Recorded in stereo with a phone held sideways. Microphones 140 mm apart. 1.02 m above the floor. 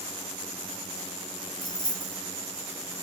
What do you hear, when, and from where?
1.6 s keys jangling: 15° right (ahead or behind), 1.2 m